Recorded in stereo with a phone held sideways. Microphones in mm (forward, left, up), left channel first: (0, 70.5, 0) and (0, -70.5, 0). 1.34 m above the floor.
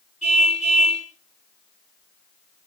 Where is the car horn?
60° left (ahead or behind), 6.5 m.